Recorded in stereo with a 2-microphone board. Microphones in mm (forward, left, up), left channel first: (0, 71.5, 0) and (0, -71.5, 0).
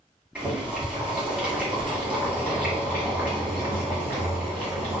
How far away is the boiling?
About 1.7 m.